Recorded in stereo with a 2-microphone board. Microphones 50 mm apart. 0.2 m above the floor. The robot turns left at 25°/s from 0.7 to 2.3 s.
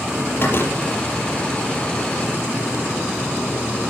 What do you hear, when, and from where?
0.4 s a door slam: 50° left (ahead or behind), 5 m; by 0.8 s 55° left (ahead or behind), 5 m